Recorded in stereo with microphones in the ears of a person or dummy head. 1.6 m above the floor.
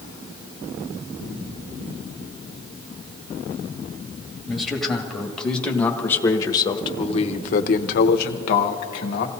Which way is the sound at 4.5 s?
Centre (ahead or behind).